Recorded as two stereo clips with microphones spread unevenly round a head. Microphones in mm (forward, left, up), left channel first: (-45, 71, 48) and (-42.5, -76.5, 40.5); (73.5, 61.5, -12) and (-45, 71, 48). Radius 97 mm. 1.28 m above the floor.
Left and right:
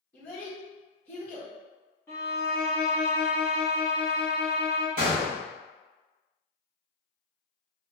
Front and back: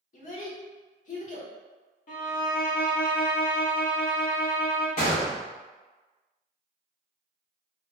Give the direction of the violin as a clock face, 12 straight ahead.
11 o'clock.